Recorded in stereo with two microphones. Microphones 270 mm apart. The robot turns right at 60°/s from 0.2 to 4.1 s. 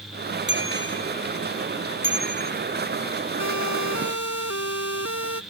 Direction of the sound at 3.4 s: 70° left (ahead or behind).